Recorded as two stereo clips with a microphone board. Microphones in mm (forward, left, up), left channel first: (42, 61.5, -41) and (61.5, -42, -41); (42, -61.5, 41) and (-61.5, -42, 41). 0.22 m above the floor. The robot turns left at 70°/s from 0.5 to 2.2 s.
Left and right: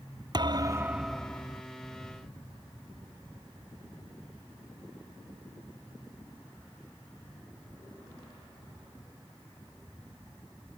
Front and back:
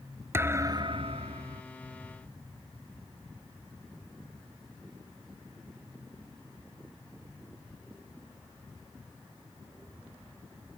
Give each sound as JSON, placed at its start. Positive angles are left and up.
{"t": 0.3, "sound": "a thud", "azimuth_deg": -125}